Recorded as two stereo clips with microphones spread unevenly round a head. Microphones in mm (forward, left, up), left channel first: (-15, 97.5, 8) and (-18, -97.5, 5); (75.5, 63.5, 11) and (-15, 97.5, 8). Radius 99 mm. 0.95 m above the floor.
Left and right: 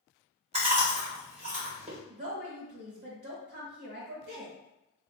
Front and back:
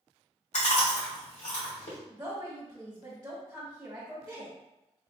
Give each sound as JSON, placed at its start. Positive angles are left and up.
{"t": 0.5, "sound": "chewing", "azimuth_deg": -30, "distance_m": 1.6}
{"t": 2.1, "sound": "a woman speaking", "azimuth_deg": -115, "distance_m": 1.6}